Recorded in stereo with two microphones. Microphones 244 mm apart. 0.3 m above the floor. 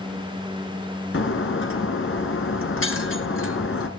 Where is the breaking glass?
55° left (ahead or behind), 1.5 m.